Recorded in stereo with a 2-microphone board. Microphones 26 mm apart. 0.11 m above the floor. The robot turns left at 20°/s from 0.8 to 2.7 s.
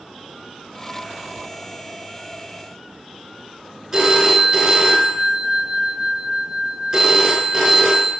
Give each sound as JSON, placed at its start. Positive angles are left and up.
{"t": 3.9, "sound": "a phone ringing", "side_deg": -20, "distance_m": 1.0}